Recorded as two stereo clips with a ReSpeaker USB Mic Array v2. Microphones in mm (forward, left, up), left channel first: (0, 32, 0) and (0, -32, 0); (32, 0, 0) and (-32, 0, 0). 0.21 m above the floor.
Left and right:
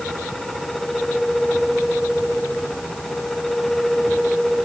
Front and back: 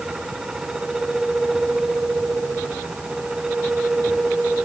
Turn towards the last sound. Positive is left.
No sound to turn to.